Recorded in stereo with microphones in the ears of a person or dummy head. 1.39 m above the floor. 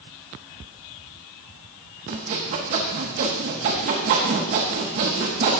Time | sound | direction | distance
2.1 | sawing | 40° right (ahead or behind) | 1.1 m